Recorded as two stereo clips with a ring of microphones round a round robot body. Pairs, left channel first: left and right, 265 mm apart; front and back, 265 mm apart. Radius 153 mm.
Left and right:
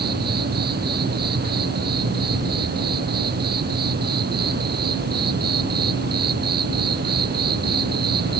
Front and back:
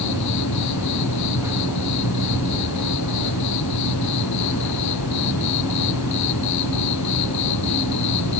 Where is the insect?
35° right.